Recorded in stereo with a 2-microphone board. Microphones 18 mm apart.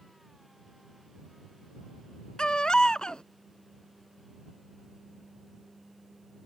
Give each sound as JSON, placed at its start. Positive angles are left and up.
{"t": 2.4, "sound": "a baby crying", "side_deg": 50}